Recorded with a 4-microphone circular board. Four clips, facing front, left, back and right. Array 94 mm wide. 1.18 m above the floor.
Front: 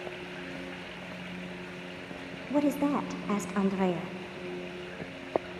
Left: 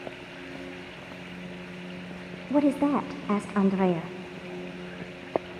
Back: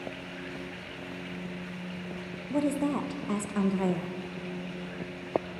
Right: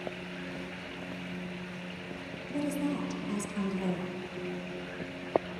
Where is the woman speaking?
80° left, 0.6 m.